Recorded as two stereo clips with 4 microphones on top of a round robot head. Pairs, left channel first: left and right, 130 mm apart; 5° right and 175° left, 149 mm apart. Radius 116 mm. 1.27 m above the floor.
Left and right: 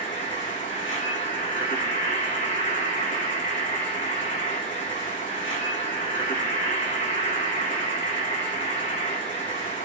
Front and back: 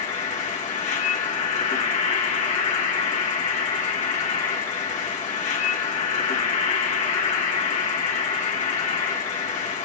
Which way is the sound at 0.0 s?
35° left.